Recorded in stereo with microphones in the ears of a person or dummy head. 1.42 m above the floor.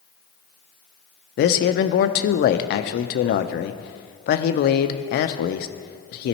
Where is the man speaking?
50° left (ahead or behind), 0.5 m.